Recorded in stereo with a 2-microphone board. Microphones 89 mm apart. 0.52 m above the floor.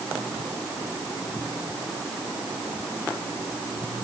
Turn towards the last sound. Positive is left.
No sound to turn to.